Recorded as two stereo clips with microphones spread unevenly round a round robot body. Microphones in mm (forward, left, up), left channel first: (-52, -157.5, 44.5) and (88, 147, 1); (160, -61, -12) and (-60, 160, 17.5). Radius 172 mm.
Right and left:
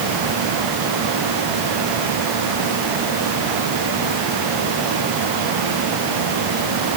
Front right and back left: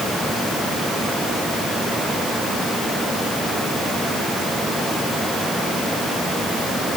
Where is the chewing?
I don't hear chewing.